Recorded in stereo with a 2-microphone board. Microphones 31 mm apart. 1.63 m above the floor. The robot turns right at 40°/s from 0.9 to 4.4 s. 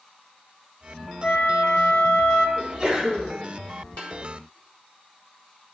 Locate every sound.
1.2 s a flute: 55° left, 1.7 m; by 2.5 s 100° left, 1.7 m
2.6 s a sneeze: 45° right, 2 m; by 3.4 s 15° right, 2 m
4.0 s tapping: 50° left (ahead or behind), 3.5 m; by 4.1 s 55° left (ahead or behind), 3.5 m